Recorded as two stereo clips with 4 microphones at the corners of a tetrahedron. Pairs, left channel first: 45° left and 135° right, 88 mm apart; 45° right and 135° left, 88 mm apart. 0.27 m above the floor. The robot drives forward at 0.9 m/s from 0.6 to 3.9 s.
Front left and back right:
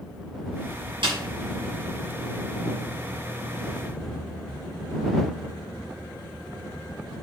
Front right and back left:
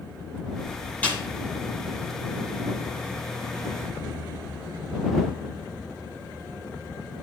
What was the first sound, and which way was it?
A snare drum, 115° right.